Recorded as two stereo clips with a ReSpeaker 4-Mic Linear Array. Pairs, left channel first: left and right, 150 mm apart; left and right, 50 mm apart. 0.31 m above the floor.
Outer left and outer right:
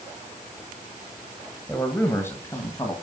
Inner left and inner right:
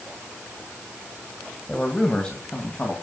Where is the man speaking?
10° left (ahead or behind), 1.8 m; by 2.9 s 25° left (ahead or behind), 2.5 m.